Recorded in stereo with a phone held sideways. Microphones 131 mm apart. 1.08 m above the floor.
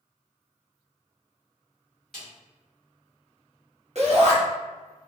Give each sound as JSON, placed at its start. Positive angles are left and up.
{"t": 2.1, "sound": "a snare drum", "side_deg": 5, "distance_m": 1.2}
{"t": 4.0, "sound": "a shout", "side_deg": -55, "distance_m": 1.0}